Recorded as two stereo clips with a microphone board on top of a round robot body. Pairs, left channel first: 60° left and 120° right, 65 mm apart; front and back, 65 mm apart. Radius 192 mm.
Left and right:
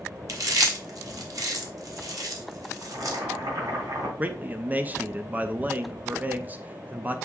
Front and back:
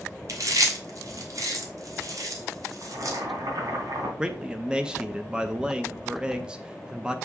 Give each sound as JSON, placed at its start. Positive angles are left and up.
{"t": 0.3, "sound": "chewing", "azimuth_deg": -150, "distance_m": 2.0}
{"t": 2.8, "sound": "boiling", "azimuth_deg": -145, "distance_m": 3.0}
{"t": 4.2, "sound": "a man speaking", "azimuth_deg": -120, "distance_m": 0.9}